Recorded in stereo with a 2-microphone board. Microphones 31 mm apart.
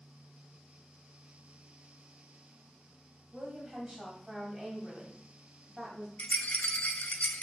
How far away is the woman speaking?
About 2 m.